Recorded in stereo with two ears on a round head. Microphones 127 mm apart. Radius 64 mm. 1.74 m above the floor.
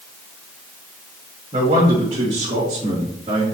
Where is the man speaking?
40° right (ahead or behind), 2.5 m; by 3.4 s 30° right (ahead or behind), 3.5 m.